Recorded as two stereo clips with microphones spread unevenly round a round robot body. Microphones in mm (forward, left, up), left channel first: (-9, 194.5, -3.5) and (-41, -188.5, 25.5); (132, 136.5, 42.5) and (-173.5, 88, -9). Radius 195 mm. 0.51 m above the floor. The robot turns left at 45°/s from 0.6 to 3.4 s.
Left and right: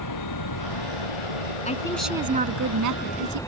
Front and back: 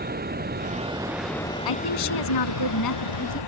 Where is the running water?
130° left; by 3.5 s straight ahead.